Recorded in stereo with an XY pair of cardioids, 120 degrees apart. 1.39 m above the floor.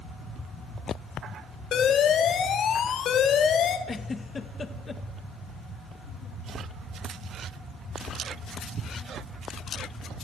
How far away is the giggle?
About 1.7 m.